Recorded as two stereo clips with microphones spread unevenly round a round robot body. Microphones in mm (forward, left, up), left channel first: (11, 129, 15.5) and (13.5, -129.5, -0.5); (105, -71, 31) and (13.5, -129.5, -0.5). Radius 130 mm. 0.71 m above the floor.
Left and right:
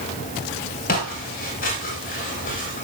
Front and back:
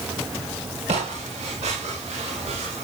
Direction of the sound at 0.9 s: 150° left.